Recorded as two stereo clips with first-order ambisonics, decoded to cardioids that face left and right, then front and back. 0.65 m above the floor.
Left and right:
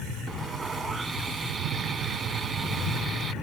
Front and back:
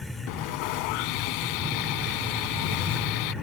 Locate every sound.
0.3 s sawing: 10° right